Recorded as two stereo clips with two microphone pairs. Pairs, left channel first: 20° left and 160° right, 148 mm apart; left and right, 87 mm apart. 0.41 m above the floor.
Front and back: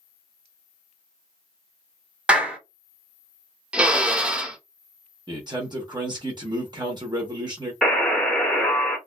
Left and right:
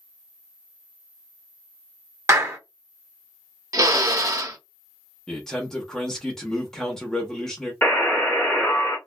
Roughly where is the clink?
No clink in this recording.